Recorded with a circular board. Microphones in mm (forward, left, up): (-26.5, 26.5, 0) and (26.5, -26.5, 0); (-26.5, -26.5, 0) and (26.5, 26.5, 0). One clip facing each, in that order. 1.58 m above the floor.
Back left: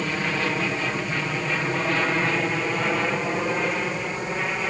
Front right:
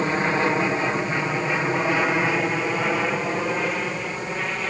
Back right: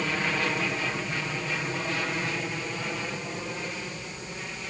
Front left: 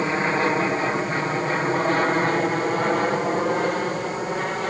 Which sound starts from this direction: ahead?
An aircraft, at 0.0 s.